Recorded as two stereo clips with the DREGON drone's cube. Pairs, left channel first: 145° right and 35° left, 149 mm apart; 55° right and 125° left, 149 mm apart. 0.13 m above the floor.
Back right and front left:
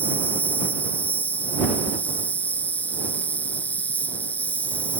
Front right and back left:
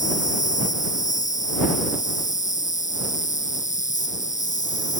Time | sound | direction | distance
0.0 | an insect | 70° right | ?